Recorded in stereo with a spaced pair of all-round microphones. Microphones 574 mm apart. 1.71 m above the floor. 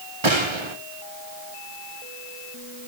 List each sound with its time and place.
0.2 s a gunshot: 50° right (ahead or behind), 1.6 m